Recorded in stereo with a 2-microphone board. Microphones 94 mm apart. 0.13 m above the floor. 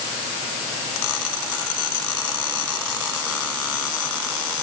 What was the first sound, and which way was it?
Only background noise.